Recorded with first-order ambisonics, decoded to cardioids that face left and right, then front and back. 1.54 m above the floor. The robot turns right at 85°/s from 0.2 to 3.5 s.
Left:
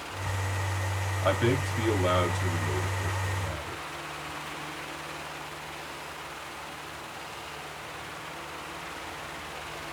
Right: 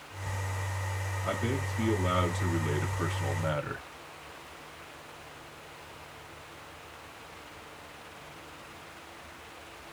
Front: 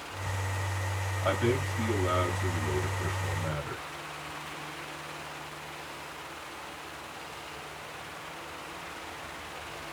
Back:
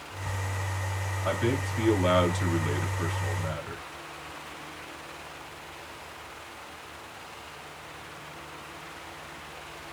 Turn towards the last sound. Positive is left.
turn(degrees=-90)